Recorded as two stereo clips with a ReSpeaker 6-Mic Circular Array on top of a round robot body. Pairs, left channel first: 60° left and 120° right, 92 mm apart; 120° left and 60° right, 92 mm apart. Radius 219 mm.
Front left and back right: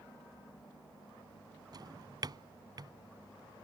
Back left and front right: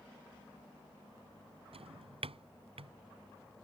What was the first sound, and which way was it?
A drawer, 70° right.